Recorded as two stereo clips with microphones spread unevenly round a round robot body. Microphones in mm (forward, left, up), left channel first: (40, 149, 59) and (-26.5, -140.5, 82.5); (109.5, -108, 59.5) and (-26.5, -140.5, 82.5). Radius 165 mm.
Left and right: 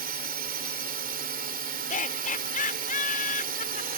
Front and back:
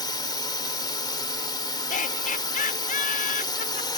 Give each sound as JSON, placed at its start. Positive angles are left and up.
{"t": 0.0, "sound": "a drone", "azimuth_deg": -45}
{"t": 1.9, "sound": "laughter", "azimuth_deg": 15}